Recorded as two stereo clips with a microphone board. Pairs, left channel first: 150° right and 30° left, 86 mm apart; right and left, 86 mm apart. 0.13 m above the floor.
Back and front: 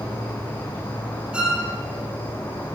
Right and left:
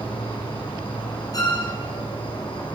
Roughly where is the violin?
Ahead right.